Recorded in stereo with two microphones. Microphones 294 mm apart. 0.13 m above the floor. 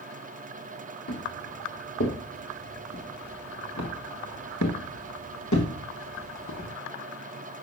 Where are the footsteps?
55° left (ahead or behind), 4.5 m; by 6.7 s 80° left, 3.5 m.